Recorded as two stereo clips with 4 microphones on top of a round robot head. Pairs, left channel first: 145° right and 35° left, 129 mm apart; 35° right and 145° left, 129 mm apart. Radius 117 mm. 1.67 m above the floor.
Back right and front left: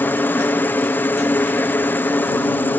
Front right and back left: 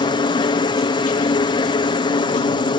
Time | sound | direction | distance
0.0 | a helicopter | 75° right | ?